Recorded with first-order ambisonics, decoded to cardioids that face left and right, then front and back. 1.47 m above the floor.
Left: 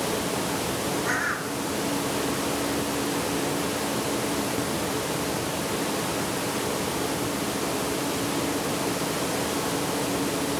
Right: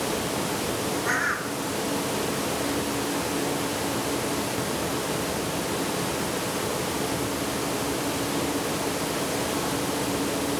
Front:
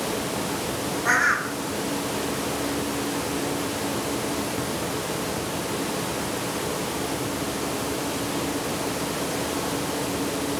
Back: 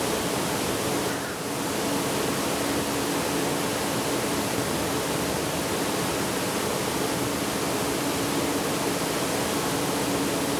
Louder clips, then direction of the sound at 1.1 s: Right 3 dB, front 9 dB; 5° right.